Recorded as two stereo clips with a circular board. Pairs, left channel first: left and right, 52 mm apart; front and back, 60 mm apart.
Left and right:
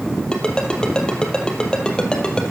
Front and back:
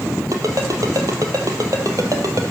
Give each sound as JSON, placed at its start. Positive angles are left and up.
{"t": 0.3, "sound": "a ringtone", "azimuth_deg": 160, "distance_m": 2.0}